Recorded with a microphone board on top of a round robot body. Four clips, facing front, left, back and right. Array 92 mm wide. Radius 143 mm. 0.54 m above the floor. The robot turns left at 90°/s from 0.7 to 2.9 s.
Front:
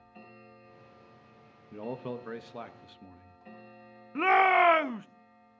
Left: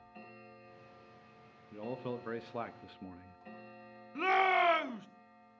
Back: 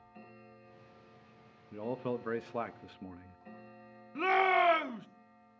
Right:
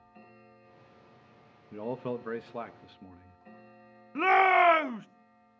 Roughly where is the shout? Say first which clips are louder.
Right 7 dB, front 5 dB; ahead right.